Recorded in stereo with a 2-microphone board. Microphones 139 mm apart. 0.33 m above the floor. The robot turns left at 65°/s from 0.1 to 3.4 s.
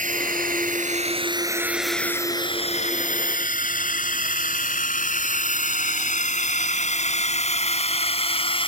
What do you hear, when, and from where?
0.0 s a drone: 65° right (ahead or behind); by 8.7 s 40° left (ahead or behind)